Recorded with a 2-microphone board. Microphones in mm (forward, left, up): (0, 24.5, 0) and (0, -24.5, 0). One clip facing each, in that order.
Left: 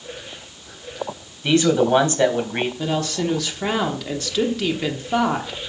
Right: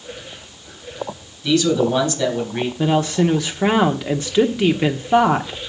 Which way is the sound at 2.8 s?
20° right (ahead or behind).